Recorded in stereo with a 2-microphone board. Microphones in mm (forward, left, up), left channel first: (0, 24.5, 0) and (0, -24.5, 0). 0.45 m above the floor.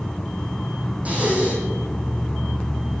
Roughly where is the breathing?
Right.